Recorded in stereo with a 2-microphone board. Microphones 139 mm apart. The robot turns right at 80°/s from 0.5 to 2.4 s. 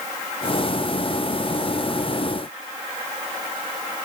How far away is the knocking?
No knocking in this recording.